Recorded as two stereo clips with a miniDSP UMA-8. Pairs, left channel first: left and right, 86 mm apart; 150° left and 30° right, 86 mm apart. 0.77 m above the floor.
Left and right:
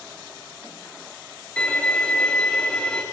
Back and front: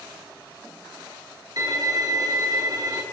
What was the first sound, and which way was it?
A violin, 15° left.